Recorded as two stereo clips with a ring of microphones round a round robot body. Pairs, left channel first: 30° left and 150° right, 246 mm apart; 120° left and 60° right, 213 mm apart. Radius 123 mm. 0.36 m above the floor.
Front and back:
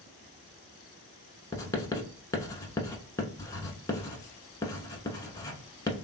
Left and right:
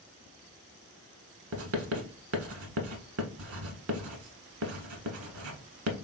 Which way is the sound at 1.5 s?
45° right.